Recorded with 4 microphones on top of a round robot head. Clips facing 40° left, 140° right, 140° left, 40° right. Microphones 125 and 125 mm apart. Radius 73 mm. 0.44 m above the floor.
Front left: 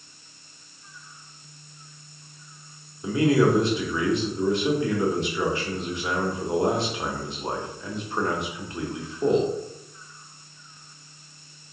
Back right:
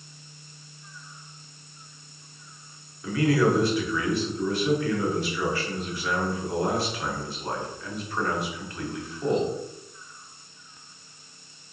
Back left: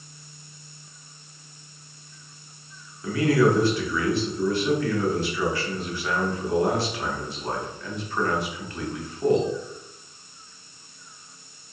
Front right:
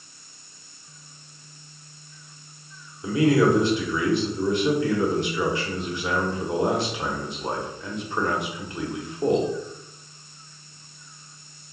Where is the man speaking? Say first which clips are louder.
Front left 2 dB, front right 1 dB; 5° left, 1.1 m.